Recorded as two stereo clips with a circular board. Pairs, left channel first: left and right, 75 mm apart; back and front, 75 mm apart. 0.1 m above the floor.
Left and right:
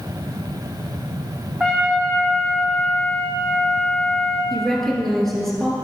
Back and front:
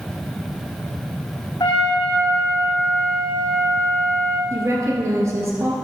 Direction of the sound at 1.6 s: 175° right.